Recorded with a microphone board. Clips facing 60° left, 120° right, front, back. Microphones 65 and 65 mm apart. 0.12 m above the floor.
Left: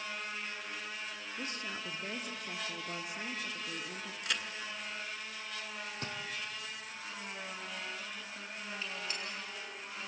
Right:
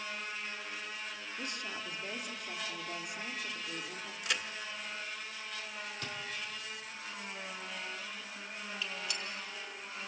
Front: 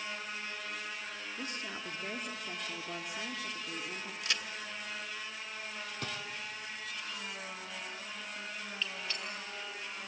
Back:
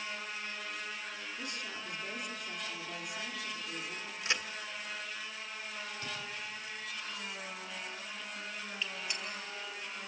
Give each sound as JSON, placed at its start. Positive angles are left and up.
{"t": 1.4, "sound": "a woman speaking", "azimuth_deg": 30, "distance_m": 1.7}
{"t": 4.2, "sound": "a crack", "azimuth_deg": 155, "distance_m": 1.5}
{"t": 6.0, "sound": "a drawer", "azimuth_deg": 5, "distance_m": 1.7}
{"t": 8.8, "sound": "a gunshot", "azimuth_deg": 110, "distance_m": 2.5}